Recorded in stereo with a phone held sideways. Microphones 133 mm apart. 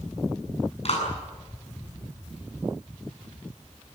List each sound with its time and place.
0.8 s a clap: 55° left (ahead or behind), 8 m